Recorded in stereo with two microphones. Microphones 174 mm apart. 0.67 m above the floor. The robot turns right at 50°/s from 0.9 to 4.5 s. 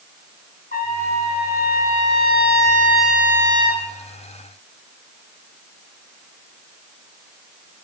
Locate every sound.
0.7 s a trumpet: 75° left, 0.9 m; by 3.8 s 140° right, 0.9 m